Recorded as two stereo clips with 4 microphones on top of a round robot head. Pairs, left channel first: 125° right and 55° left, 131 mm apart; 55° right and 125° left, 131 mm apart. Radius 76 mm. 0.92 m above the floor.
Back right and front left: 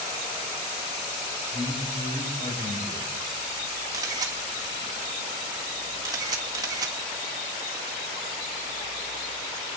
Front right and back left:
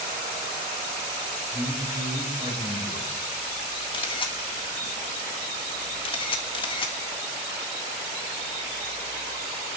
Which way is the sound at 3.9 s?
5° right.